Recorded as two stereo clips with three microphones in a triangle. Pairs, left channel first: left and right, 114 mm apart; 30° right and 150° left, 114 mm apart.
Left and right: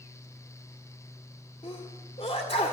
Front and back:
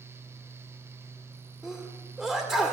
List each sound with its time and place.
1.6 s a sneeze: 60° left, 1.8 m